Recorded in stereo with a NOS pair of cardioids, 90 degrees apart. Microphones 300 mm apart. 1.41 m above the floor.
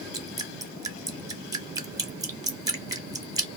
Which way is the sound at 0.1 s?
10° right.